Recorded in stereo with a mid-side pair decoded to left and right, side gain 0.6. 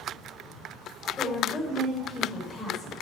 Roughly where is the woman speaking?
Ahead.